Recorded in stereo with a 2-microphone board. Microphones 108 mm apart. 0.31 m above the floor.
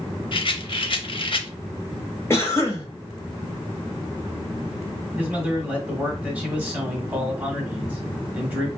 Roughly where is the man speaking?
Centre.